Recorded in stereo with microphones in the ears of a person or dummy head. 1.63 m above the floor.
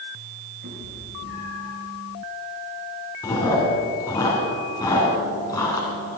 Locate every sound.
0.6 s a cat meowing: 60° right (ahead or behind), 5 m
3.2 s chewing: 20° left (ahead or behind), 2.5 m